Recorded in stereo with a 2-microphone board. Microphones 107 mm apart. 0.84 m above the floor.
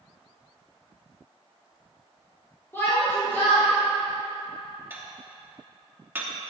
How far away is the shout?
About 2.5 m.